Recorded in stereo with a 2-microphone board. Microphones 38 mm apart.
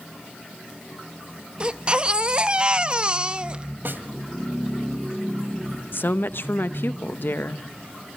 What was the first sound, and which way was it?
A baby crying, 30° right (ahead or behind).